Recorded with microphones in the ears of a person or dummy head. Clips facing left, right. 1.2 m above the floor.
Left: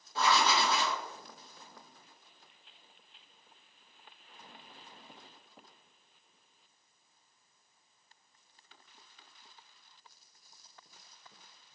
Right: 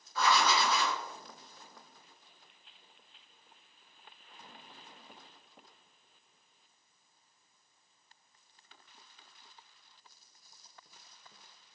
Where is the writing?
25° left (ahead or behind), 0.8 m.